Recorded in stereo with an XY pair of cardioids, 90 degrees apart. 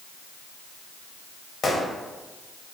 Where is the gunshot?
60° left, 1.3 m.